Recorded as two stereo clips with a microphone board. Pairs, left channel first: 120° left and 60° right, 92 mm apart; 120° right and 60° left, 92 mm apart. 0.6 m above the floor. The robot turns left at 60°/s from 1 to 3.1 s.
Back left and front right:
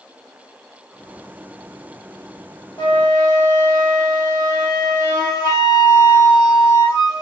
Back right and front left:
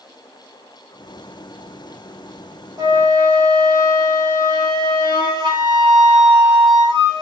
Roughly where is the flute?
Left.